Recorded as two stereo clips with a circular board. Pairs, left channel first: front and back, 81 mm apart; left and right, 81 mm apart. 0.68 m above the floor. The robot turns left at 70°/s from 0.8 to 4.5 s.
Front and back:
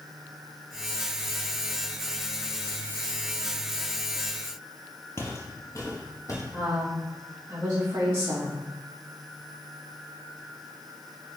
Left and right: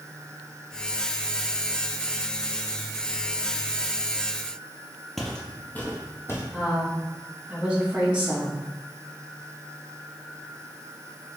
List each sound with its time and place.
5.2 s footsteps: 5° left, 0.7 m; by 6.4 s 40° left, 1.2 m
6.5 s a woman speaking: 155° right, 1.1 m